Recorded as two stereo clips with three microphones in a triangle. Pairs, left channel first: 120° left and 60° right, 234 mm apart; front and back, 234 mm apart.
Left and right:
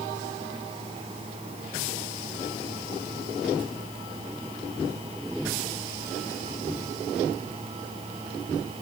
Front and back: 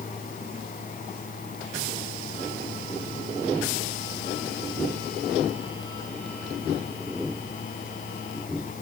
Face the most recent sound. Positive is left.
No sound to turn to.